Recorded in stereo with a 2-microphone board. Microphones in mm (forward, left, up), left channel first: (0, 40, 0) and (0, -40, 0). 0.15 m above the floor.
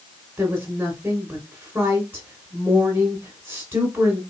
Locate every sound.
0.4 s a woman speaking: 20° right (ahead or behind), 1.6 m